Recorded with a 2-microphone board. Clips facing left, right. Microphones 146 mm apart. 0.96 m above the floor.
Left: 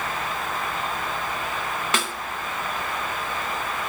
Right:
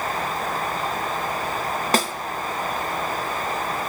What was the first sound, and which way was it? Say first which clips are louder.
A snare drum: right 7 dB; 40° right (ahead or behind).